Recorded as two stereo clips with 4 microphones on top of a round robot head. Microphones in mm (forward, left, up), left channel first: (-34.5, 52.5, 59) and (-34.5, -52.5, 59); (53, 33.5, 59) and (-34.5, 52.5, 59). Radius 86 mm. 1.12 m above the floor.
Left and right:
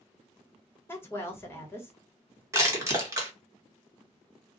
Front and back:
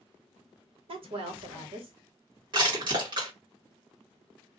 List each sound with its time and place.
0.9 s a woman speaking: 160° left, 1.2 m
2.5 s crushing: 150° right, 1.4 m